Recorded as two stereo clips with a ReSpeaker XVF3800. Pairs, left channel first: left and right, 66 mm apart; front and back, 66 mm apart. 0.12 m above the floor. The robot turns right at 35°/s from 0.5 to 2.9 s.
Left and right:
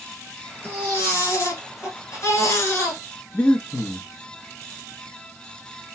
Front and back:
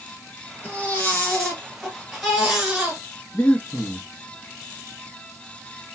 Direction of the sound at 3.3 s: 45° left.